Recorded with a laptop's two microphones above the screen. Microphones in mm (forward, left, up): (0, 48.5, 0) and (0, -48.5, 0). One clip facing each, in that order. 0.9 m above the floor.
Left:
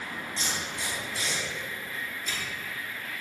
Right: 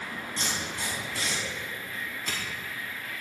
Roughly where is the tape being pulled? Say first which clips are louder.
Right 2 dB; right.